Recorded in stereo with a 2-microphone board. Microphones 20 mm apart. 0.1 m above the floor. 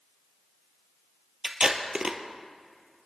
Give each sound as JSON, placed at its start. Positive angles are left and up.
{"t": 1.4, "sound": "tape being pulled", "side_deg": -40, "distance_m": 1.0}